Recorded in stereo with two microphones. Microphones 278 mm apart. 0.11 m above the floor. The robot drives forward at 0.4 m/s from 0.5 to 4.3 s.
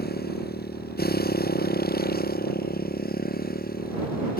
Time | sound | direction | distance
0.0 | a motorcycle | 30° left (ahead or behind) | ?